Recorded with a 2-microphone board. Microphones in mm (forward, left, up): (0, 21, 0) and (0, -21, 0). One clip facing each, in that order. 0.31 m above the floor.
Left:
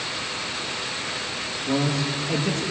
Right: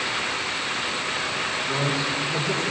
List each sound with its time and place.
1.7 s a man speaking: 65° left (ahead or behind), 8 m